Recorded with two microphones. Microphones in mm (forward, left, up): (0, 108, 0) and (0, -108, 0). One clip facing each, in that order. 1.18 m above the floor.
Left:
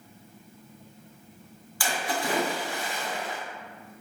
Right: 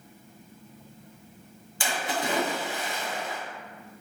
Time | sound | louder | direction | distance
1.8 | a splash | even | 20° right (ahead or behind) | 1.0 m